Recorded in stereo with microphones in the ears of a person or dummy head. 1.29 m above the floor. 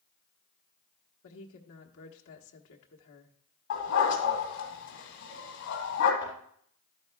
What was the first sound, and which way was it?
A woman speaking, 70° left (ahead or behind).